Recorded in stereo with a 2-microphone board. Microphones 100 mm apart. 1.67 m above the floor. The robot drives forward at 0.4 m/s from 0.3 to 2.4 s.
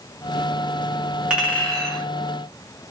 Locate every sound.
1.3 s a clink: 10° right (ahead or behind), 1.0 m